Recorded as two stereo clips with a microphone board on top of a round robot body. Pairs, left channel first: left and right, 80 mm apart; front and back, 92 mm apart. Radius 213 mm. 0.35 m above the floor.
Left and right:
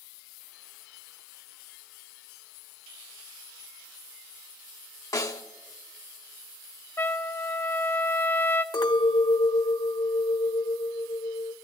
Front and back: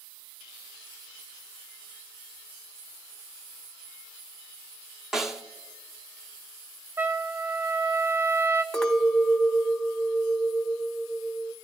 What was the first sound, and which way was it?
A snare drum, 95° left.